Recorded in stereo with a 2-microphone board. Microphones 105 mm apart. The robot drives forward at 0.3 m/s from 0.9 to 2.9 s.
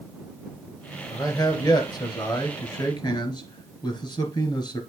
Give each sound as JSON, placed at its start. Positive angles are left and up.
{"t": 1.1, "sound": "a man speaking", "side_deg": 35, "distance_m": 1.8}